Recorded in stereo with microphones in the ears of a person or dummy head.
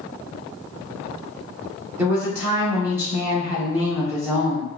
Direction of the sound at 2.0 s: 15° right (ahead or behind).